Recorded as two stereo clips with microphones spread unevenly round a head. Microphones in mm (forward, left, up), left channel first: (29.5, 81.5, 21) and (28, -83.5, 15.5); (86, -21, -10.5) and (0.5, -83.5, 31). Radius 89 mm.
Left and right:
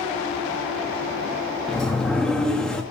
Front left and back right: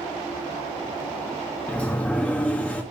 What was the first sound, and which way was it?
A sliding door, 160° left.